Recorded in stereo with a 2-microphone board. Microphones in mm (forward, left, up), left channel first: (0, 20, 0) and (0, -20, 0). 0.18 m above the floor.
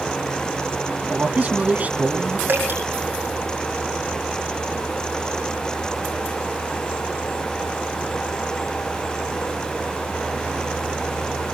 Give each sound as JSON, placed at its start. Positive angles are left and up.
{"t": 1.1, "sound": "a man speaking", "side_deg": -40, "distance_m": 1.5}
{"t": 2.5, "sound": "dripping", "side_deg": -55, "distance_m": 6.0}